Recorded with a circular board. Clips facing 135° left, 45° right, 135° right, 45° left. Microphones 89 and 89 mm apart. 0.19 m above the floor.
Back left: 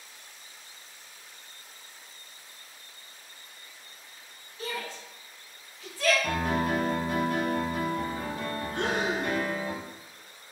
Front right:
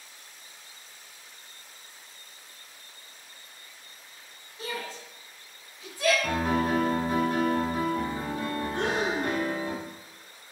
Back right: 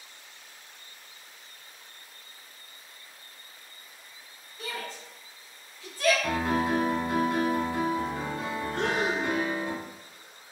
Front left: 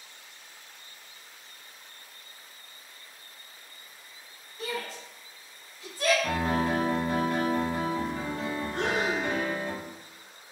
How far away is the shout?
About 1.7 m.